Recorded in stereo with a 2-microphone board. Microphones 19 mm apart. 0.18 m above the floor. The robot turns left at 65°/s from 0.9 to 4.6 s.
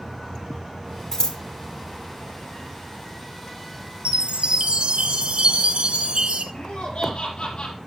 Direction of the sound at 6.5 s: 65° left (ahead or behind).